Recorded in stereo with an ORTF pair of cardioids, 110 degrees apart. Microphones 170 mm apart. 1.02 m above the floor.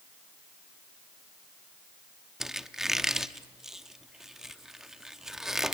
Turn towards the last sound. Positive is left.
turn(degrees=-5)